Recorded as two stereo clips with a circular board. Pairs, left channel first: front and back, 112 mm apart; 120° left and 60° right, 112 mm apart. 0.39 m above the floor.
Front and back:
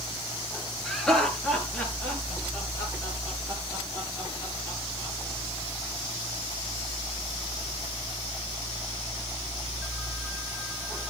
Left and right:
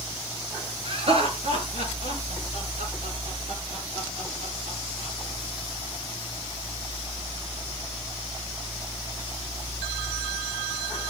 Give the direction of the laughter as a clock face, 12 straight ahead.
3 o'clock.